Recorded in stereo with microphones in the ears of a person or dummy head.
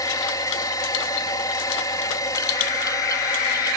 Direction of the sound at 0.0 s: 15° left (ahead or behind).